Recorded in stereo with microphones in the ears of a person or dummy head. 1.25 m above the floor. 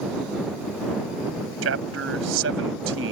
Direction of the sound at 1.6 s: 80° right.